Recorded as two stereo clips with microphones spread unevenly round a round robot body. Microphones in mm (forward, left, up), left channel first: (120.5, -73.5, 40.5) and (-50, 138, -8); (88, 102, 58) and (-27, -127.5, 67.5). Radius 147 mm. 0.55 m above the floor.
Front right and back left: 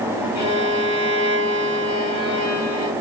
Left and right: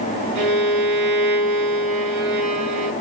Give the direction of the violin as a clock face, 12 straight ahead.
4 o'clock.